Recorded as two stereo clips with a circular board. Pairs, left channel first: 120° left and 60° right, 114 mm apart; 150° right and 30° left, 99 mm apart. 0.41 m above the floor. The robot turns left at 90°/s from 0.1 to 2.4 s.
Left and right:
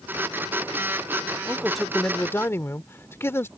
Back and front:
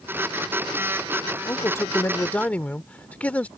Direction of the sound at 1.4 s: 120° right.